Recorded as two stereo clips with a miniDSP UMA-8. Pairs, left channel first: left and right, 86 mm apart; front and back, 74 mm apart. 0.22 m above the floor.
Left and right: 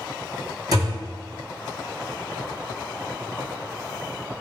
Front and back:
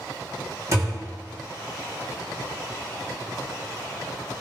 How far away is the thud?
About 1.8 m.